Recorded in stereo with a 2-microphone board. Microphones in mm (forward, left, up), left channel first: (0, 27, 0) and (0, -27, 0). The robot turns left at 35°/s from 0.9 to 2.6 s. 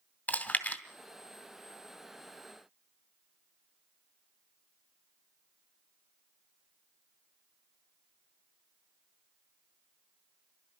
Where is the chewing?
25° left (ahead or behind), 1.8 m.